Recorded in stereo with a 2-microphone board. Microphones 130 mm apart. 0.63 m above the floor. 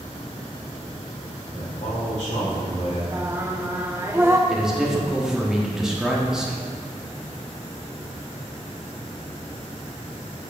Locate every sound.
1.5 s a man speaking: 65° left (ahead or behind), 2 m
3.1 s singing: 15° right (ahead or behind), 0.6 m
4.5 s a man speaking: 5° right (ahead or behind), 1.1 m